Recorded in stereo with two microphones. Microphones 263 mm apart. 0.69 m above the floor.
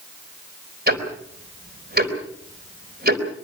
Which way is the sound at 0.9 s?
40° right (ahead or behind).